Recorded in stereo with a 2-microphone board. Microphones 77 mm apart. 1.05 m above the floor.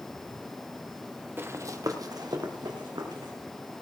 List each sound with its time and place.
1.4 s running footsteps: 30° right (ahead or behind), 1.2 m; by 3.3 s 70° right (ahead or behind), 3 m